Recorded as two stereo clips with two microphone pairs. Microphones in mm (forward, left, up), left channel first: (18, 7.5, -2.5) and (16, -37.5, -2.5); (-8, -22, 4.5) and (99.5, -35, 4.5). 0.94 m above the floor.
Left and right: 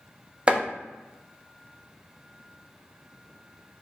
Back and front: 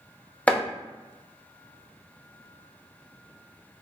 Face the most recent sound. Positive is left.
turn(degrees=-115)